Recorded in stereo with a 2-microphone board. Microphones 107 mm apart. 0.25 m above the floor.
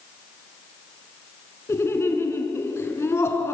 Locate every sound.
1.7 s laughter: 25° left (ahead or behind), 3.5 m